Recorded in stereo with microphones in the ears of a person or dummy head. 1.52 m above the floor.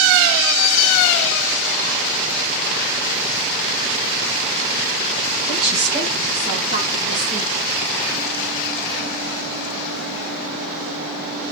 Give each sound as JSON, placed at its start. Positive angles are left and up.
{"t": 5.5, "sound": "a woman speaking", "side_deg": -60, "distance_m": 1.6}